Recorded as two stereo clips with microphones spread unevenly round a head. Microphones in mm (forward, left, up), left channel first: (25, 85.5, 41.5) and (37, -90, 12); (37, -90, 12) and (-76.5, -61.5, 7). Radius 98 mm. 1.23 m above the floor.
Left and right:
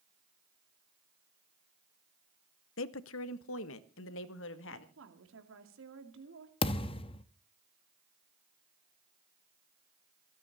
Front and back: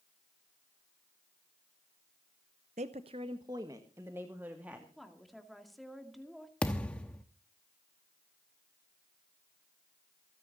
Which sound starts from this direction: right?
A woman speaking, at 5.0 s.